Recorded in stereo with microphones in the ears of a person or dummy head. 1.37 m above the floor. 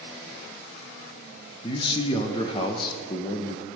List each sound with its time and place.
1.6 s a man speaking: 25° left (ahead or behind), 0.5 m